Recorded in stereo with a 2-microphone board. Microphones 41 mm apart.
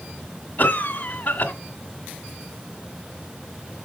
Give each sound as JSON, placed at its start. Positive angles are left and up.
{"t": 0.6, "sound": "a cough", "side_deg": 40, "distance_m": 1.7}